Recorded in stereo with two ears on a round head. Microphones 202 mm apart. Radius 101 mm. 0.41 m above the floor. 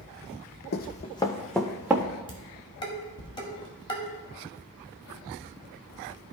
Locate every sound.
0.7 s running footsteps: 45° left (ahead or behind), 0.8 m; by 2.0 s 10° right (ahead or behind), 1.6 m
2.3 s dishes clattering: 20° left (ahead or behind), 1.7 m